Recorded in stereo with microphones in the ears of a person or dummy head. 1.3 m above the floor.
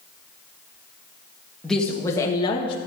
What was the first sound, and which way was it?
A woman speaking, 5° left (ahead or behind).